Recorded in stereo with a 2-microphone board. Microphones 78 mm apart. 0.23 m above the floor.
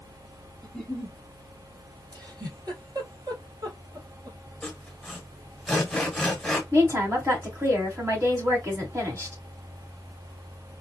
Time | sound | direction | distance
0.6 | a giggle | 5° left (ahead or behind) | 0.5 m
2.1 | a giggle | 60° right (ahead or behind) | 2 m
4.6 | sawing | 5° left (ahead or behind) | 1.0 m
6.7 | a woman speaking | 40° right (ahead or behind) | 1.7 m